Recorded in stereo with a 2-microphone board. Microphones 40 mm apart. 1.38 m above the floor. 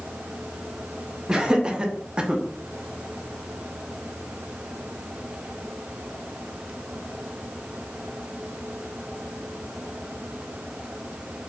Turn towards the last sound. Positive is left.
turn(degrees=-10)  # may be behind; listen again after turning